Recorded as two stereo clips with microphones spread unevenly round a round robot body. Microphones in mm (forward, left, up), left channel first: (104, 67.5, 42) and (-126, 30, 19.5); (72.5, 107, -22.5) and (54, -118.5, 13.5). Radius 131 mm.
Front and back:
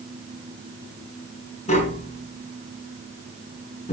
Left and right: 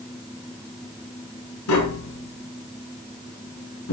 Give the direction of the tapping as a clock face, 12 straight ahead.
10 o'clock.